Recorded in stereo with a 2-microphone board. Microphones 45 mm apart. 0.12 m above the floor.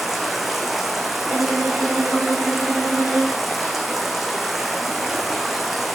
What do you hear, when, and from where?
0.0 s running water: centre (ahead or behind), 1.3 m
1.2 s a violin: 45° right (ahead or behind), 1.4 m